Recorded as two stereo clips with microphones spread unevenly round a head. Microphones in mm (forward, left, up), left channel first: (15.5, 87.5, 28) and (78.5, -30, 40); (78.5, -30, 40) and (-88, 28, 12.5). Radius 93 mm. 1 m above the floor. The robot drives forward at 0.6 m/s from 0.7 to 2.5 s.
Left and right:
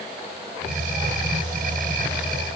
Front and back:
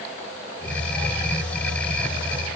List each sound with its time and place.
Only background noise.